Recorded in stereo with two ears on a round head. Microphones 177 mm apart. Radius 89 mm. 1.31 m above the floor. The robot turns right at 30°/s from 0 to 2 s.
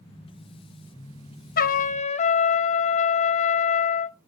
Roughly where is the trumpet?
Left.